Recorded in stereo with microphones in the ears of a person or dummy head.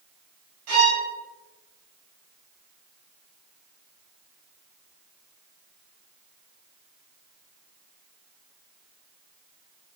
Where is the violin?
65° right (ahead or behind), 4 m.